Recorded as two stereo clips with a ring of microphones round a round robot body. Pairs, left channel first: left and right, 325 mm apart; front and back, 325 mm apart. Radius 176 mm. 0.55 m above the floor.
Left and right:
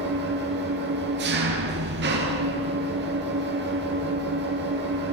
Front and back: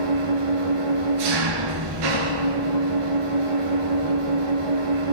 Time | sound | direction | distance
0.0 | an engine running | 155° right | 2.5 m